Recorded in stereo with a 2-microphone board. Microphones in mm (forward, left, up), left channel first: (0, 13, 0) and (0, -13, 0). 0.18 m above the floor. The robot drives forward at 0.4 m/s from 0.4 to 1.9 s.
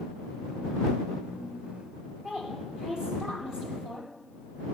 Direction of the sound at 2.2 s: 25° right (ahead or behind).